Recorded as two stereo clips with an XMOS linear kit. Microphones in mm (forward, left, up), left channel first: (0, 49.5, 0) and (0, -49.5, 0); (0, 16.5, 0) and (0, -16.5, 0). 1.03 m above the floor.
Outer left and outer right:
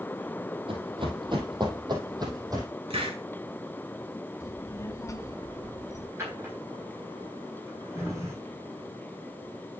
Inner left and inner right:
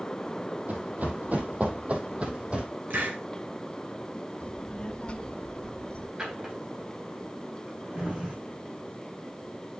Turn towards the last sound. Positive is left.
turn(degrees=-25)  # may be behind; listen again after turning